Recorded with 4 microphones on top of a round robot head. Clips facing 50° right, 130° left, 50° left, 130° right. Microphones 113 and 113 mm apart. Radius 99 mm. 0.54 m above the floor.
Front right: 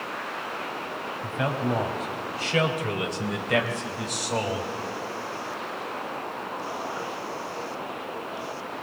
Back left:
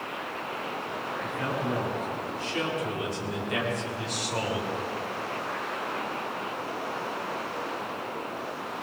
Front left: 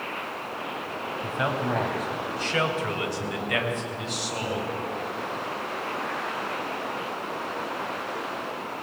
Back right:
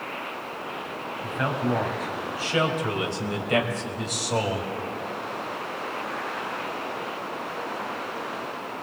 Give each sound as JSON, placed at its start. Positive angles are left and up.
{"t": 1.2, "sound": "a man speaking", "azimuth_deg": -30, "distance_m": 4.0}